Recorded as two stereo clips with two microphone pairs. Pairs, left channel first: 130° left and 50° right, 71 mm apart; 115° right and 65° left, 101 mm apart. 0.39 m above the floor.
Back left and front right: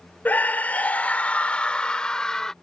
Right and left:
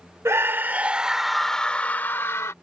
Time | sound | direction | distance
0.2 | a scream | 95° left | ?